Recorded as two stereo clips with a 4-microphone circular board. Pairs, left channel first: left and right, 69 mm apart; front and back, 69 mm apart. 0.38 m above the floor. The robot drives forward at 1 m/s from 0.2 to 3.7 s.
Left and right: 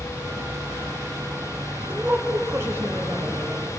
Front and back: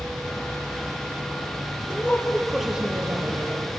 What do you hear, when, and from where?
0.0 s an insect: 130° right, 4 m; by 3.8 s 155° right, 6.5 m
1.9 s a woman speaking: 40° right, 1.1 m; by 3.6 s 155° right, 1.5 m